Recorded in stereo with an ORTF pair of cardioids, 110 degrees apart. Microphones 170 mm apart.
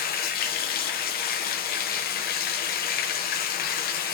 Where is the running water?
65° left, 0.8 m.